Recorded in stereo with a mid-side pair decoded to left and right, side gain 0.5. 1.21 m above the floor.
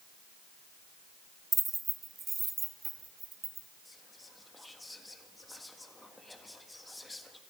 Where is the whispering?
10° left, 1.6 m.